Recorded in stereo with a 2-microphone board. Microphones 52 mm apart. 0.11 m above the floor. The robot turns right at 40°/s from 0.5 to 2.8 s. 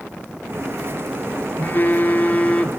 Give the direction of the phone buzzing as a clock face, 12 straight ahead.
9 o'clock.